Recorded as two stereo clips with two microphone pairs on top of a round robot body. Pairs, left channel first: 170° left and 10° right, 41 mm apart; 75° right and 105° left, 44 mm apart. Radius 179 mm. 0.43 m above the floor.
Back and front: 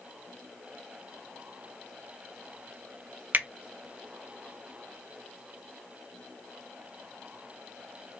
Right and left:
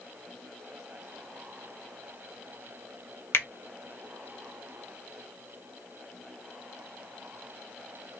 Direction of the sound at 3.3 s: 45° right.